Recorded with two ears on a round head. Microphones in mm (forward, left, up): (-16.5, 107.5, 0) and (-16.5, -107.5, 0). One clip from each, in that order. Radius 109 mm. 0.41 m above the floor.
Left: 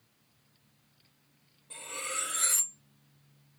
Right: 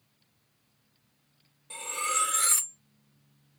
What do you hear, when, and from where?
1.7 s cutlery clinking: 35° right (ahead or behind), 0.7 m